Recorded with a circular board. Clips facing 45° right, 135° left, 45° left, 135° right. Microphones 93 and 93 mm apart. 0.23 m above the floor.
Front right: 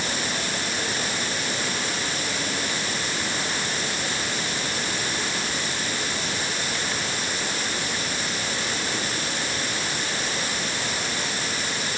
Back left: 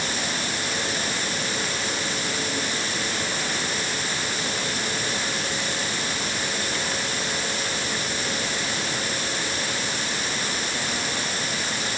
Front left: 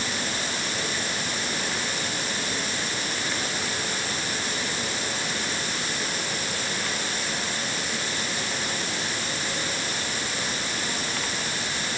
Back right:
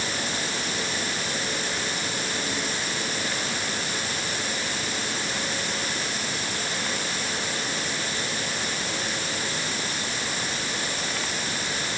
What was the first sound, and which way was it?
Only background noise.